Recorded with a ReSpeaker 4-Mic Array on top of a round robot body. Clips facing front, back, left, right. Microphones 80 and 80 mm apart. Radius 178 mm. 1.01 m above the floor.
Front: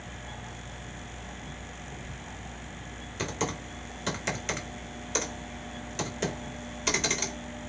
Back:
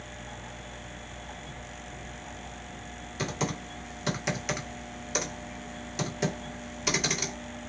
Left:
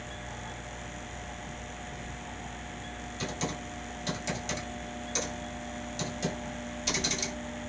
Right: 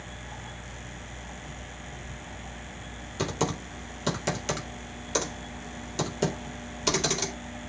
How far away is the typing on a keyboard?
About 2.5 m.